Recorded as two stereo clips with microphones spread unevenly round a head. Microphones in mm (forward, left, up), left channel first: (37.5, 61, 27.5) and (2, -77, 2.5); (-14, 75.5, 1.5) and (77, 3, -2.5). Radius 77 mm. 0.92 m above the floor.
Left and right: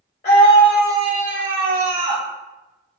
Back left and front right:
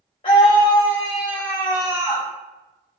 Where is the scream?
115° left, 0.7 m; by 2.3 s 105° right, 1.6 m.